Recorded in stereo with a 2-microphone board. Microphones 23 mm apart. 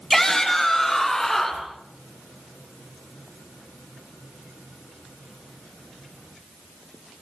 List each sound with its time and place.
0.1 s a shout: 10° left (ahead or behind), 6 m; by 1.7 s 5° left (ahead or behind), 8 m